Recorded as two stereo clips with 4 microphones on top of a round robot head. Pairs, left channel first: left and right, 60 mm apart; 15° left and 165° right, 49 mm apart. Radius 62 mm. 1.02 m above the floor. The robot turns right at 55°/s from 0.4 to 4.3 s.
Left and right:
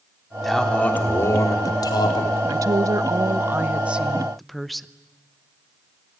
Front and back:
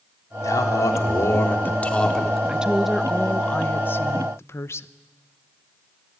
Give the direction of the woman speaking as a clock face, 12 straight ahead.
3 o'clock.